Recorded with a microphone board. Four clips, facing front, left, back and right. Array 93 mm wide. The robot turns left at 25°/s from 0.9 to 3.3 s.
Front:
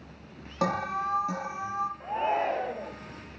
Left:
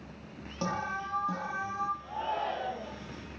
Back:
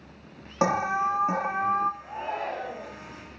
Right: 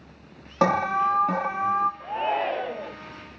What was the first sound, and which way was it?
An alarm, 110° right.